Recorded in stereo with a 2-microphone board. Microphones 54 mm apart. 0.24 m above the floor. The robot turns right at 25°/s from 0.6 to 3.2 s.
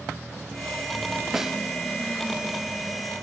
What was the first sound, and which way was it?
A snare drum, 10° right (ahead or behind).